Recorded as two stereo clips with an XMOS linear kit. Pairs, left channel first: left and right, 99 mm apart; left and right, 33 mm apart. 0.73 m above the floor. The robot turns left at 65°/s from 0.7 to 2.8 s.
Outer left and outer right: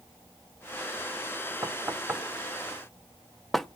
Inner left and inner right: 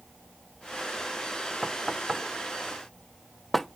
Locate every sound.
1.6 s knocking: 30° right (ahead or behind), 0.7 m; by 3.7 s 5° left (ahead or behind), 0.7 m